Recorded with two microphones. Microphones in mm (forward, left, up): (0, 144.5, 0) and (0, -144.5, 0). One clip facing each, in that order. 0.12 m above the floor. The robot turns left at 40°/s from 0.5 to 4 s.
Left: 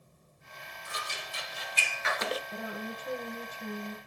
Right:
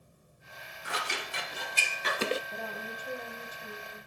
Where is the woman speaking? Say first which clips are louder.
Left 3 dB; 170° left, 2.5 m; by 4.0 s 115° left, 2.5 m.